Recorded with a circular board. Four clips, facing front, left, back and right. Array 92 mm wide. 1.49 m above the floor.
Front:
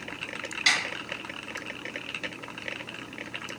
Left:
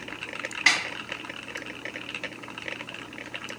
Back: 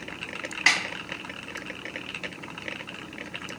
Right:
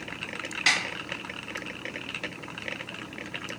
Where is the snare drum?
155° left, 1.0 m.